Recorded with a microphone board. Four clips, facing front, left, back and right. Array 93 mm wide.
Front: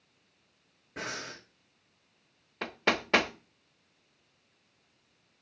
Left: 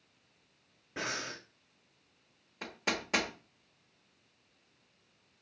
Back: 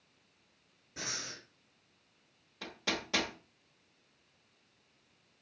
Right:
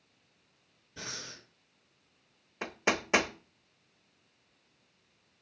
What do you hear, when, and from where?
1.0 s breathing: 55° left, 1.9 m
2.6 s hammering: 30° right, 1.1 m